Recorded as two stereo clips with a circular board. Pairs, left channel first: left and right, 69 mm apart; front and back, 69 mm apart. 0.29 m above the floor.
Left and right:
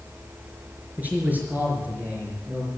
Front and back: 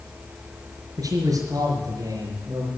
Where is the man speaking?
155° right, 5 m.